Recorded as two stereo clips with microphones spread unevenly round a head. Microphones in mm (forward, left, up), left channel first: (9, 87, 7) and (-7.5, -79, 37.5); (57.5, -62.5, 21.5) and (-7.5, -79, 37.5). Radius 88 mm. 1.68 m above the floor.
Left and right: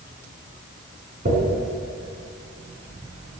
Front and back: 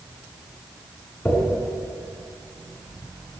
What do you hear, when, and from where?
1.2 s a dropped coin: 55° right, 5.5 m